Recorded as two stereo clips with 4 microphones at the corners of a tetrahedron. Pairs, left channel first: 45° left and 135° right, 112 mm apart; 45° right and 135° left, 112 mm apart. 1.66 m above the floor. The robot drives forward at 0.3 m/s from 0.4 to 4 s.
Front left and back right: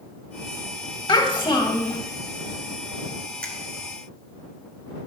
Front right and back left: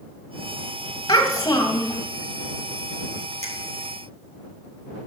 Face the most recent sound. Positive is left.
turn(degrees=130)